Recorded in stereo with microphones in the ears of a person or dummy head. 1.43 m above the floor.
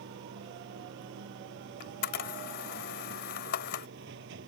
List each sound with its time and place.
0.0 s running water: 75° right (ahead or behind)
1.8 s a camera shutter: 60° left (ahead or behind)